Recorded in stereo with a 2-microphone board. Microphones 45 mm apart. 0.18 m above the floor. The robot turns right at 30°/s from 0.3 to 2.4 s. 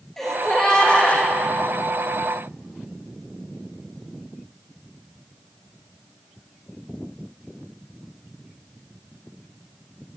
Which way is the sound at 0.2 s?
5° left (ahead or behind).